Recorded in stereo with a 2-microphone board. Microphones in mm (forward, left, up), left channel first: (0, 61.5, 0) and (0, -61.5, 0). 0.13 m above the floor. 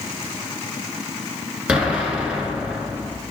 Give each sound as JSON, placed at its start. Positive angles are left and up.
{"t": 1.7, "sound": "an explosion", "side_deg": -10, "distance_m": 1.0}